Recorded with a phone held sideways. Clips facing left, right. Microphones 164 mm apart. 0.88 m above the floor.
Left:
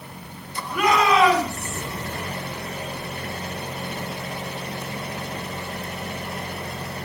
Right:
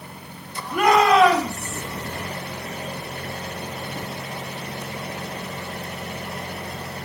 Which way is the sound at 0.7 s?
45° right (ahead or behind).